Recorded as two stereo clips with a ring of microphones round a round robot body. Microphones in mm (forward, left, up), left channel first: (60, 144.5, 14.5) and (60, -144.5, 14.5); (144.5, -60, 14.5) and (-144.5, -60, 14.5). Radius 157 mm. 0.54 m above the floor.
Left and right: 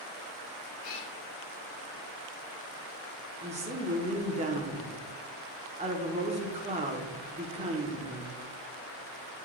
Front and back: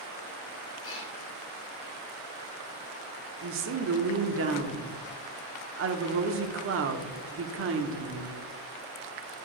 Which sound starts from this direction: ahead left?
A cat meowing, at 0.8 s.